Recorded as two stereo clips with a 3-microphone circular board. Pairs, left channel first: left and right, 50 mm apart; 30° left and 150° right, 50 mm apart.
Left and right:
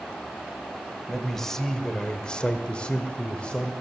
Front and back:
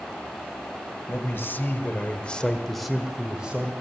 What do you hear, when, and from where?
1.1 s a man speaking: 5° left, 1.9 m; by 3.7 s 150° left, 1.7 m